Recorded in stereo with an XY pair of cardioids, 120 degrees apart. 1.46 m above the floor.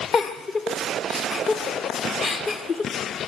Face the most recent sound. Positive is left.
turn(degrees=45)